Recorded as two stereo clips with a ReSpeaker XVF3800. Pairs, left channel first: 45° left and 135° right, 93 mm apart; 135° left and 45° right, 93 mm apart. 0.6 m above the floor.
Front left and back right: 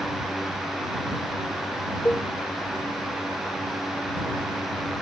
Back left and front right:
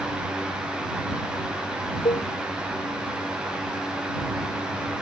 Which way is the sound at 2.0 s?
115° left.